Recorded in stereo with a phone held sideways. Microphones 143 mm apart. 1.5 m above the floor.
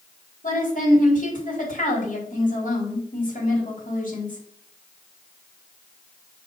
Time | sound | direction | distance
0.4 | a woman speaking | 70° left (ahead or behind) | 4.5 m